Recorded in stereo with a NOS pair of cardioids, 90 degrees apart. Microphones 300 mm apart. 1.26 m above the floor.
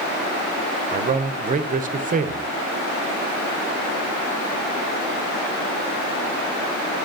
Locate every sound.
0.9 s a man speaking: 30° right, 0.6 m